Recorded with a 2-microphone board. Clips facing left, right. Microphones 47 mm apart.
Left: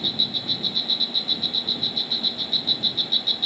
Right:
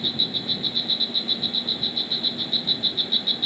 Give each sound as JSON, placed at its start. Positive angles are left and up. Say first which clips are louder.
{"t": 0.0, "sound": "an insect", "louder": "even", "side_deg": -10}